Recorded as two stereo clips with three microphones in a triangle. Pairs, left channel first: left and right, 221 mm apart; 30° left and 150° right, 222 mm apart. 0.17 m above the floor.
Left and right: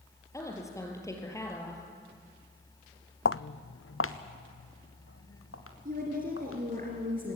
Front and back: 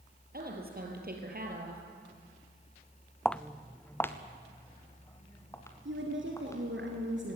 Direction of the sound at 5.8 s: 135° right.